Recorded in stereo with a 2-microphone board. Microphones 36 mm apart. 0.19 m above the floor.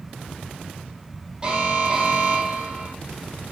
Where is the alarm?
25° right (ahead or behind), 6.5 m.